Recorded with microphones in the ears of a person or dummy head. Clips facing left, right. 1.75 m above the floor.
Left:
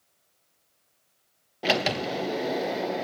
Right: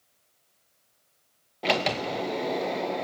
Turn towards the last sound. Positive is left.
turn(degrees=5)  # may be behind; listen again after turning